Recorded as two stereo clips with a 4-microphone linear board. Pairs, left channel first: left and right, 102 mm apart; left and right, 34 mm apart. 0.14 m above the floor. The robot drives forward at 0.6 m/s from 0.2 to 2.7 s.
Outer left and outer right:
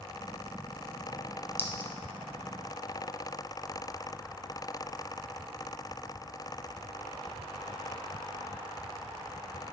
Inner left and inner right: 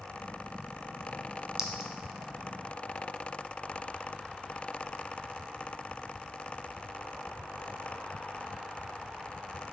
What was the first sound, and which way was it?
A clink, 20° right (ahead or behind).